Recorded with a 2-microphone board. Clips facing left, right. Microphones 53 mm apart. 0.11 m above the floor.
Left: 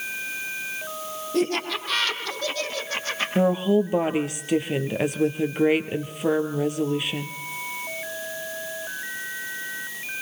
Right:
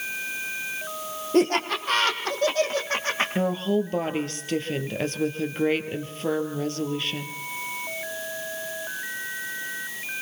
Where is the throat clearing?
I don't hear throat clearing.